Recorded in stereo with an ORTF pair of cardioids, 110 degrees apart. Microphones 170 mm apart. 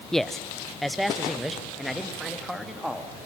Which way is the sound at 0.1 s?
Straight ahead.